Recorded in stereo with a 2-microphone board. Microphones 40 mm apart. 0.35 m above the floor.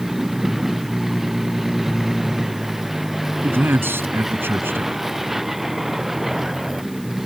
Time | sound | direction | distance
0.0 | a vehicle | 10° right (ahead or behind) | ?
3.4 | a man speaking | 70° right (ahead or behind) | ?